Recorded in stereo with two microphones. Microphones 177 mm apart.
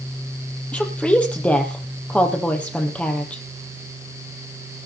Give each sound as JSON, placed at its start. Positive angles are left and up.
{"t": 0.7, "sound": "a woman speaking", "side_deg": 5, "distance_m": 5.5}